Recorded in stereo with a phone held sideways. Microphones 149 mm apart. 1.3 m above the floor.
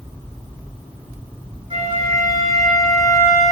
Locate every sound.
1.7 s a flute: 40° right (ahead or behind), 1.1 m